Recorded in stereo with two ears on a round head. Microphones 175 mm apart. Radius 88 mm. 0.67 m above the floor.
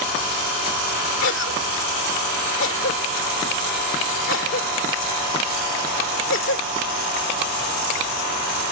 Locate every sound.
1.2 s a cough: 65° left (ahead or behind)